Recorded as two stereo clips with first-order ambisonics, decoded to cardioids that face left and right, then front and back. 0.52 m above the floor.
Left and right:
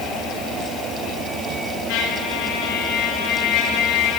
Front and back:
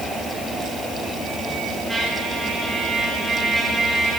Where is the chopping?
I don't hear chopping.